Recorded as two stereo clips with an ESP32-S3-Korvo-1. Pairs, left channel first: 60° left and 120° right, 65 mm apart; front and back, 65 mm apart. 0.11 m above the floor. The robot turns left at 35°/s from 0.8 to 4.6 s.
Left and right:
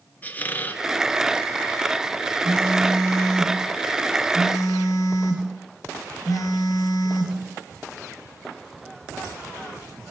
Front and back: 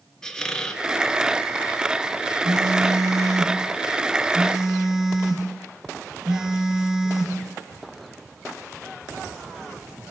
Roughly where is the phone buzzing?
Behind.